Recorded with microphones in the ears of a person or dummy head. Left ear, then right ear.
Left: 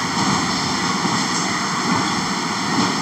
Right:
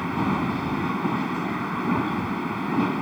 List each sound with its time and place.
0.0 s a machine running: 85° left